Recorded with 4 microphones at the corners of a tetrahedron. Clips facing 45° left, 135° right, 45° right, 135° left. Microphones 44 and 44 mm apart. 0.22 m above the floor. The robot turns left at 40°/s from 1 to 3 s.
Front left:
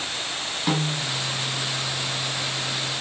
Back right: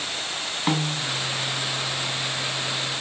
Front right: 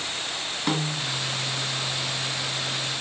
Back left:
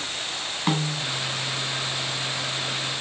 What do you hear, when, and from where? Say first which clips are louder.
0.7 s a snare drum: even, back left 1 dB; 165° left, 1.2 m